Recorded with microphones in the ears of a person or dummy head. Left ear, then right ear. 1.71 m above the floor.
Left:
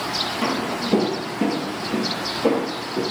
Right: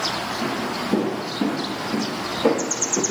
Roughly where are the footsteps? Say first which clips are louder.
Left 2 dB; left.